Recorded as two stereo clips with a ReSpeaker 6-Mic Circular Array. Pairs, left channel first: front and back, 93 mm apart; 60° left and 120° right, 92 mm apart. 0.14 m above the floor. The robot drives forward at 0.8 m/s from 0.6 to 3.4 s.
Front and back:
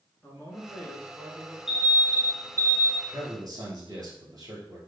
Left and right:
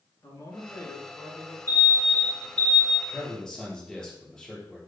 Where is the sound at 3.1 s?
140° left, 2 m; by 4.8 s 145° left, 2.5 m.